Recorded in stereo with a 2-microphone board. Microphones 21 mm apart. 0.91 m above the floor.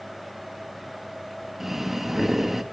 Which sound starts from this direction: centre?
Breathing, at 1.6 s.